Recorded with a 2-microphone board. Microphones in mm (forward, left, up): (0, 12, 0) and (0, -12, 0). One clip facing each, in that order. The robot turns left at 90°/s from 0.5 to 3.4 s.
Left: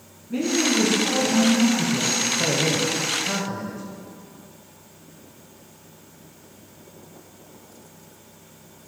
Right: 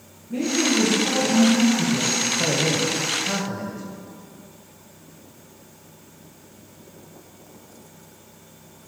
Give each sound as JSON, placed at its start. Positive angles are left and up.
{"t": 0.3, "sound": "a woman speaking", "azimuth_deg": 45, "distance_m": 2.5}
{"t": 2.4, "sound": "a man speaking", "azimuth_deg": 70, "distance_m": 1.2}